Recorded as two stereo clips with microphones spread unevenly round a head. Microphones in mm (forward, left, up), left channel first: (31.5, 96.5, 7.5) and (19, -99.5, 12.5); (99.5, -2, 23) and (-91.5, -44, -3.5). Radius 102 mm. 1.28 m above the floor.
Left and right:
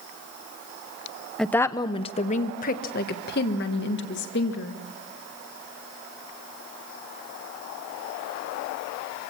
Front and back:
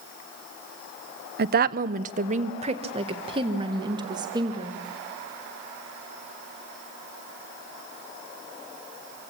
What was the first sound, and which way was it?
A woman speaking, 175° left.